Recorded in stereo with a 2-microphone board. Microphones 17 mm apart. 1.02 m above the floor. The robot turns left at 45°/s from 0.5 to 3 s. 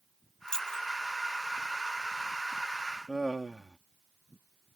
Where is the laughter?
30° right (ahead or behind).